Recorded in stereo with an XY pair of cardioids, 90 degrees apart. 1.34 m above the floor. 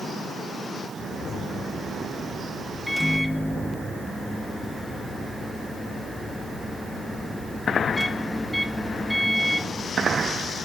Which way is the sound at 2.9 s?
5° left.